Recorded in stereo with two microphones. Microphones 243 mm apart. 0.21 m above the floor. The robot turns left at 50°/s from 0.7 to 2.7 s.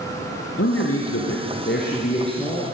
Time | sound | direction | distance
0.6 | a man speaking | 105° left | 3 m